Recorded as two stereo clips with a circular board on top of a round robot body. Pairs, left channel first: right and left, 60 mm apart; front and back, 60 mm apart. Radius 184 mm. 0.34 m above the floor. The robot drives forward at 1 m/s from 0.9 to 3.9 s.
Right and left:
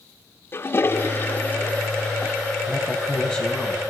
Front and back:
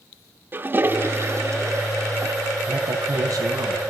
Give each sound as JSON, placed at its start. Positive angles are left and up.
{"t": 0.5, "sound": "a toilet flushing", "azimuth_deg": -130, "distance_m": 1.6}
{"t": 2.7, "sound": "a woman speaking", "azimuth_deg": -160, "distance_m": 4.5}